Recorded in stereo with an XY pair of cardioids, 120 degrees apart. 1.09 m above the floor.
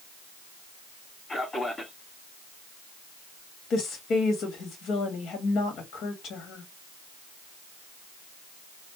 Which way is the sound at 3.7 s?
65° left.